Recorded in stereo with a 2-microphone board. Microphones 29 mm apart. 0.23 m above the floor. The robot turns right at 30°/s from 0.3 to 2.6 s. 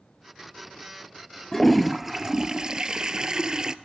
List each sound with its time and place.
1.5 s a toilet flushing: 175° left, 0.8 m; by 3.8 s 155° right, 0.8 m